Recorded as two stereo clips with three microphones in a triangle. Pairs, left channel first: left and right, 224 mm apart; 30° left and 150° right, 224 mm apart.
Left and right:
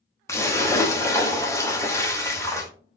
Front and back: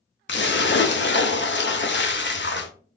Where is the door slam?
I don't hear a door slam.